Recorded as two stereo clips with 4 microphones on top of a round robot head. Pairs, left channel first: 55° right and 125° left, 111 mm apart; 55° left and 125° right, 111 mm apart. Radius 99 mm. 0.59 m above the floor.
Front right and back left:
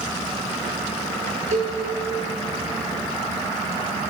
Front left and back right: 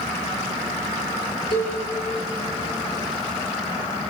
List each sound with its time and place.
1.5 s a cowbell: 105° left, 8.5 m